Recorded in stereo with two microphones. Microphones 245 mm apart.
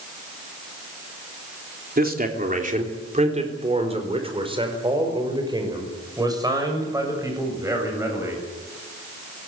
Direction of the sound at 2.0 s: 40° right (ahead or behind).